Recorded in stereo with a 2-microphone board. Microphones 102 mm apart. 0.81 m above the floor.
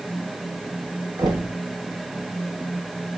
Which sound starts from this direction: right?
Knocking, at 1.2 s.